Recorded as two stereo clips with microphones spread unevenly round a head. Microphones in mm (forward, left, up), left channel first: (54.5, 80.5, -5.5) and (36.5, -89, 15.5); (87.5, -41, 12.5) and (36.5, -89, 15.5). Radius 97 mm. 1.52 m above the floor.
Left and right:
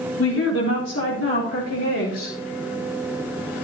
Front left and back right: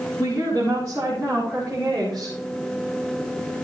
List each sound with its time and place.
0.2 s a woman speaking: 105° left, 4.5 m; by 2.3 s 125° left, 7 m